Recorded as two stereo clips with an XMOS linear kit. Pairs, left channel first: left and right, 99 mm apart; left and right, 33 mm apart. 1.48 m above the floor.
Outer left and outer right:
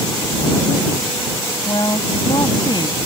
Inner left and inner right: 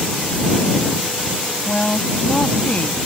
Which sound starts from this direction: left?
A woman speaking, at 1.6 s.